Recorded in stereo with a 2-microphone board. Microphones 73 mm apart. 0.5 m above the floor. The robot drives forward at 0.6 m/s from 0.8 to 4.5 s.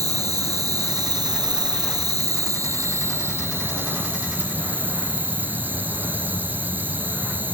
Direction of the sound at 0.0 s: 55° right (ahead or behind).